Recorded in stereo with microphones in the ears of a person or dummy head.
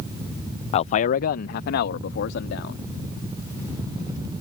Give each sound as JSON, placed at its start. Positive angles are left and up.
{"t": 0.7, "sound": "a man speaking", "side_deg": 35}